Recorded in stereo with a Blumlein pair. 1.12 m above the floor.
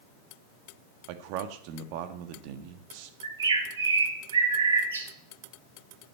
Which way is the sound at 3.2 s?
65° right.